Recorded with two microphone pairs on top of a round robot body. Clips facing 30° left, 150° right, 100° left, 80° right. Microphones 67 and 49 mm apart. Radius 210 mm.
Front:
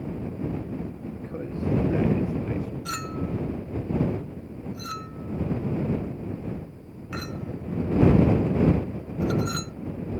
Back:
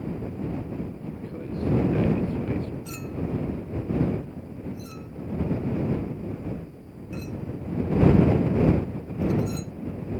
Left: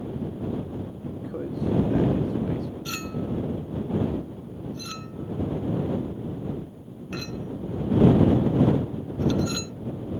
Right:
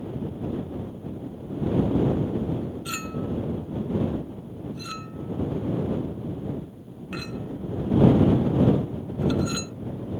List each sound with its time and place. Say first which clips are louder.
1.0 s a man speaking: front 1 dB, left 3 dB; 90° left; by 2.8 s 110° left
2.9 s a clink: front 1 dB, even; straight ahead